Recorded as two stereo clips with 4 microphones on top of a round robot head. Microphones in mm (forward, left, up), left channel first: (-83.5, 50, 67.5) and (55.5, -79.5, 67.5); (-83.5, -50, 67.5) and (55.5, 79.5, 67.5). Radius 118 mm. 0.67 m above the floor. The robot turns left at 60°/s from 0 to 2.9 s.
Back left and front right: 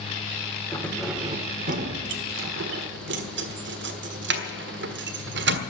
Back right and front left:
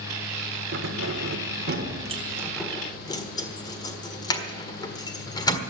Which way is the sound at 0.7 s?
65° left.